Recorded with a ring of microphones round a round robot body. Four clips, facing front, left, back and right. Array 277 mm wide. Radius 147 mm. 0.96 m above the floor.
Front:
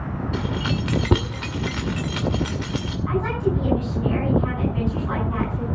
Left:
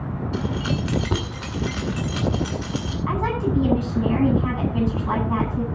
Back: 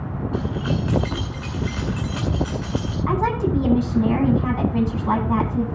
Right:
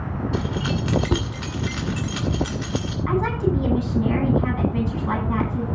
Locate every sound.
0.3 s keys jangling: 5° right, 2 m
3.1 s a woman speaking: 165° right, 10 m